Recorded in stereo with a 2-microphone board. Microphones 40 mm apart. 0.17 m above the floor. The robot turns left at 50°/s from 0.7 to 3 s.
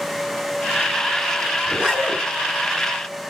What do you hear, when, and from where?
1.6 s a zipper: 25° right (ahead or behind), 1.6 m; by 2.2 s 10° right (ahead or behind), 1.6 m